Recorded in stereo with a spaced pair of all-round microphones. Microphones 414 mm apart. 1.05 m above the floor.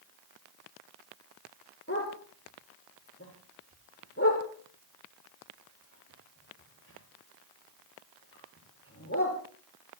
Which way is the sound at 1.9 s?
30° left (ahead or behind).